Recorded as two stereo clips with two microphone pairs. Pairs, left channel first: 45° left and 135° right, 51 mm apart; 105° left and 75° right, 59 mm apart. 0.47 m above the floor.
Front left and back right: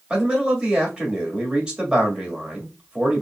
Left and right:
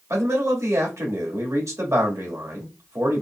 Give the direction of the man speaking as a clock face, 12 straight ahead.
2 o'clock.